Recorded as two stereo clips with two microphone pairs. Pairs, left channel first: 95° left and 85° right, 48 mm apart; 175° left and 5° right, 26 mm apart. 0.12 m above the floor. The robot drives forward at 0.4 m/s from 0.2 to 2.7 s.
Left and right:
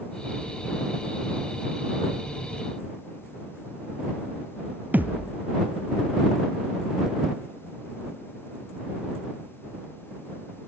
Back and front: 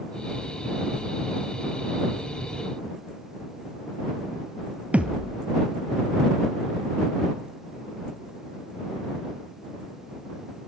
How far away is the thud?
About 1.1 m.